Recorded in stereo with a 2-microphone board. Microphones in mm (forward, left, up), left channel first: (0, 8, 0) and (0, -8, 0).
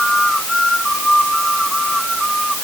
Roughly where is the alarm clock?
I don't hear an alarm clock.